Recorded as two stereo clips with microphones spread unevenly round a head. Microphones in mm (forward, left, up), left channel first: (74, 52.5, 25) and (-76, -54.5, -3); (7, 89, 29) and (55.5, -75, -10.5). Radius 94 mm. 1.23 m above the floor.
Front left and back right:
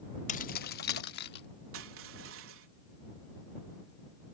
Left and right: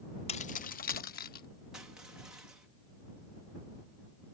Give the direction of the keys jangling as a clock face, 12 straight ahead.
10 o'clock.